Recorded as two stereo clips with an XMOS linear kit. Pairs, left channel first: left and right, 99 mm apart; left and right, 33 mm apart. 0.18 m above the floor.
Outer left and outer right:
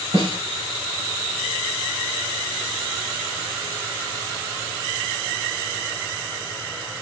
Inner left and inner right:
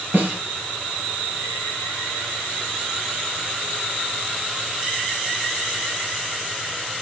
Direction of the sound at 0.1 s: 65° right (ahead or behind).